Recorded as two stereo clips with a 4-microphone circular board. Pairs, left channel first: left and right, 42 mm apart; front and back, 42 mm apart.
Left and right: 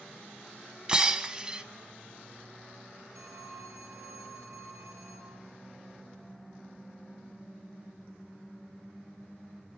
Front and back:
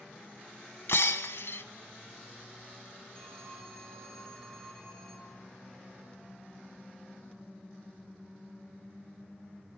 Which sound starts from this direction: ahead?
Breaking glass, at 0.9 s.